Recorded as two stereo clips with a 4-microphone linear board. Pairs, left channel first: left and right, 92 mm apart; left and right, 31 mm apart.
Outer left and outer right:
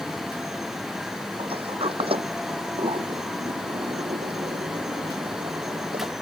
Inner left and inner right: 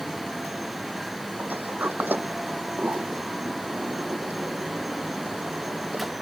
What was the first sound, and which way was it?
A sliding door, 80° right.